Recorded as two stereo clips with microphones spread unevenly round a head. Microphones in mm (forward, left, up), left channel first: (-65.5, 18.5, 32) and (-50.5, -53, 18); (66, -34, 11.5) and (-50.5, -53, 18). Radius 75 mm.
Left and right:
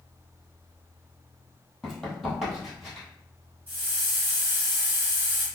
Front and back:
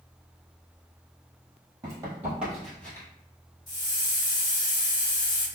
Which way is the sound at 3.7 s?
40° right.